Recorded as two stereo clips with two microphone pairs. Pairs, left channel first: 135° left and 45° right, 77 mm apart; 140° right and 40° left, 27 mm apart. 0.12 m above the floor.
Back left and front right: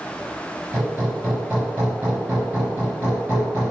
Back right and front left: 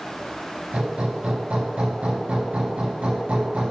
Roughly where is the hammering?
Ahead left.